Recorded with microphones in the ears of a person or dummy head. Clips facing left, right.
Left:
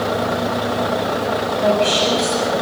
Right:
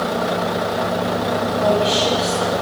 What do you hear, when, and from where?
1.6 s a woman speaking: 35° left (ahead or behind), 9 m